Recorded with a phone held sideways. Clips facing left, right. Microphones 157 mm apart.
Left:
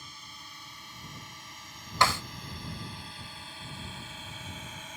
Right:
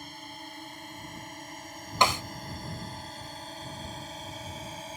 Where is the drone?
50° right (ahead or behind); by 5.0 s 35° right (ahead or behind).